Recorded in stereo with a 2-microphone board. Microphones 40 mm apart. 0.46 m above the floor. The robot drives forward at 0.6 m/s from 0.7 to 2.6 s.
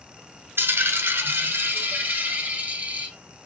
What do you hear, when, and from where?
0.6 s a dropped coin: 75° right (ahead or behind), 1.0 m; by 3.1 s 45° right (ahead or behind), 1.4 m